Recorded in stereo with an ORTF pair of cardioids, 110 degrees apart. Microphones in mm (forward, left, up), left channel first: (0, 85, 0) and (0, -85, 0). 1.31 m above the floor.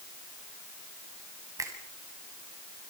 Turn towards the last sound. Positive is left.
turn(degrees=-20)